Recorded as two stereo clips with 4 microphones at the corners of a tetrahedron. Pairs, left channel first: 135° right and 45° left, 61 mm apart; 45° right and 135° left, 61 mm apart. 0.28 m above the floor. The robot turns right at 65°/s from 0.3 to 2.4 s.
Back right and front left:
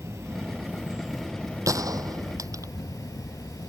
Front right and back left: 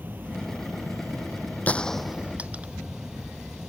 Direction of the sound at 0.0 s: 80° left.